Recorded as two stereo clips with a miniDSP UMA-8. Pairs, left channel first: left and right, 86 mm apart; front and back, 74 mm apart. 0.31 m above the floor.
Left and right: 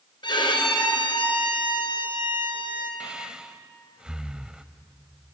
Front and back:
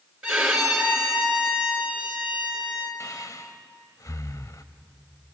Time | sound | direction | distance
0.2 | a violin | 95° left | 3.5 m
3.0 | breathing | 15° right | 0.8 m